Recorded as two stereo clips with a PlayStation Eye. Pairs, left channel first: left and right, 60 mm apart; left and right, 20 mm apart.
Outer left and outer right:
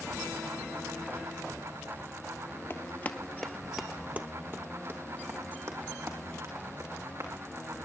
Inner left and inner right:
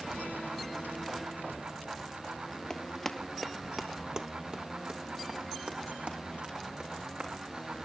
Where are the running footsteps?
45° left (ahead or behind), 1.5 m; by 7.7 s 60° right (ahead or behind), 5 m.